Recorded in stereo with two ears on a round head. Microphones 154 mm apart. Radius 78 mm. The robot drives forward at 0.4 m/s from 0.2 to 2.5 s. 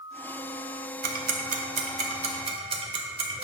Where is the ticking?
55° right (ahead or behind), 0.7 m; by 3.4 s 35° right (ahead or behind), 1.0 m.